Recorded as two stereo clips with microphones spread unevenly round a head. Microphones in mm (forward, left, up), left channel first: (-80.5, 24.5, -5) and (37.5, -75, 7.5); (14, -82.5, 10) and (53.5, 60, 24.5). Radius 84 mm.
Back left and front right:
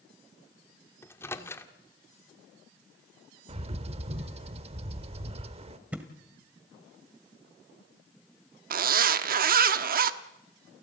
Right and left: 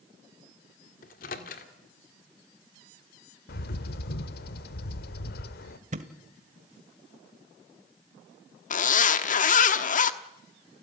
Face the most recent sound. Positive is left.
turn(degrees=-70)